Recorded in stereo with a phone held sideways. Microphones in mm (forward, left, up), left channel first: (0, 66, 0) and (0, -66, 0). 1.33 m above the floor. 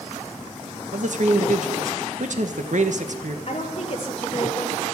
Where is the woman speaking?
45° left (ahead or behind), 2.5 m.